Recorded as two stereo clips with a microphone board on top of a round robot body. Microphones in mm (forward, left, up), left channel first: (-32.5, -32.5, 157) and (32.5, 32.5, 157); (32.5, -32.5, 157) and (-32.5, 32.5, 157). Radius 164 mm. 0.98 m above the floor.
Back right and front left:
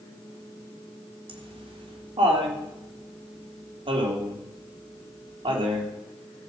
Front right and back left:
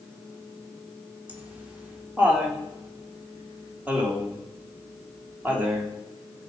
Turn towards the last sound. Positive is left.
turn(degrees=60)